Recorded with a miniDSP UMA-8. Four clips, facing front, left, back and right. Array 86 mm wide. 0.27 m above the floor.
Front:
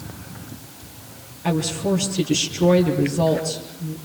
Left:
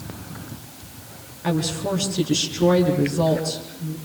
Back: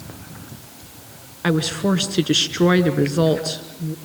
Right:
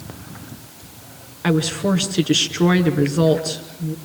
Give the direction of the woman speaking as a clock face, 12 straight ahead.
5 o'clock.